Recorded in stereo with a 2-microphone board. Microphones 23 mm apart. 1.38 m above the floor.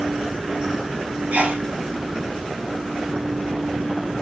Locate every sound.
1.3 s a sneeze: 70° right (ahead or behind), 2 m